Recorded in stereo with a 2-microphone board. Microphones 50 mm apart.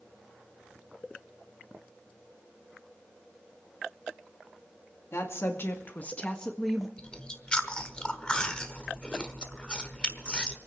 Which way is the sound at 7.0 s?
20° left (ahead or behind).